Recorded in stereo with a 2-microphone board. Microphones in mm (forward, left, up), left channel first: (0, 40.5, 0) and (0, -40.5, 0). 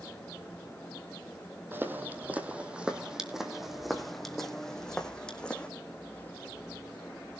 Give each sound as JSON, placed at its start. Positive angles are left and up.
{"t": 1.7, "sound": "footsteps", "side_deg": -25, "distance_m": 2.0}